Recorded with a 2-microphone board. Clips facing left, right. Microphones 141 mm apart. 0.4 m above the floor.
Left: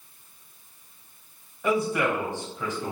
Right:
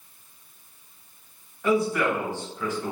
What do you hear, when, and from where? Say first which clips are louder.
1.6 s a man speaking: right 2 dB; 20° left (ahead or behind), 1.9 m